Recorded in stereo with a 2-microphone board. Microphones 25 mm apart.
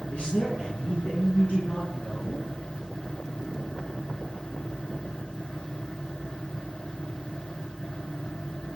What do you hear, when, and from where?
0.1 s a man speaking: 70° left (ahead or behind), 4.5 m; by 2.5 s 75° left (ahead or behind), 7 m